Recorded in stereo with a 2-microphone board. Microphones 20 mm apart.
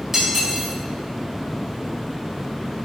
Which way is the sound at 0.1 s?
20° right (ahead or behind).